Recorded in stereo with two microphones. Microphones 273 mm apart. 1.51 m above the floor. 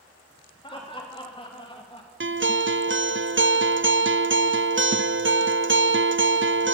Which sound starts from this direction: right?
A guitar, at 2.2 s.